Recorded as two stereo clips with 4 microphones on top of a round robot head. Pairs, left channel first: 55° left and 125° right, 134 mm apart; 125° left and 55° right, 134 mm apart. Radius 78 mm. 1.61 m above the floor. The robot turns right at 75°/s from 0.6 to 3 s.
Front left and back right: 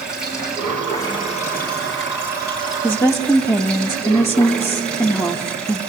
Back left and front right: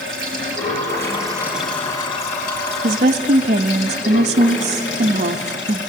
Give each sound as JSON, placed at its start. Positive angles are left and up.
{"t": 0.0, "sound": "running water", "azimuth_deg": -40, "distance_m": 3.5}
{"t": 2.8, "sound": "a woman speaking", "azimuth_deg": -30, "distance_m": 0.6}